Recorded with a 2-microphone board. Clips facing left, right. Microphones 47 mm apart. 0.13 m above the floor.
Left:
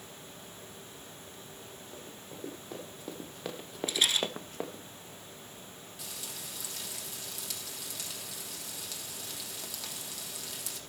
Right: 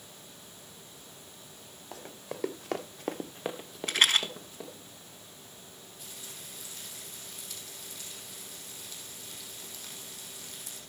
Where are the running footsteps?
85° right, 1.8 m; by 4.8 s 45° left (ahead or behind), 1.5 m.